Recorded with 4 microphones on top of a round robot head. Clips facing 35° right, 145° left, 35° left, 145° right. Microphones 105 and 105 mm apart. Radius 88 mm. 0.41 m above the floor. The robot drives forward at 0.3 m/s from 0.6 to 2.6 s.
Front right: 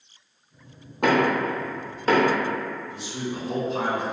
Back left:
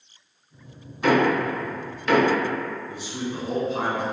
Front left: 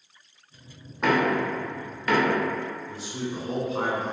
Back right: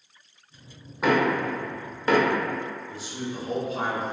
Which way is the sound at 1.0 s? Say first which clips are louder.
Back left 1 dB, even; 60° right.